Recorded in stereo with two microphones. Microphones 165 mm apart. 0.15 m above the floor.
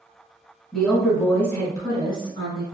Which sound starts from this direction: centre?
A woman speaking, at 0.7 s.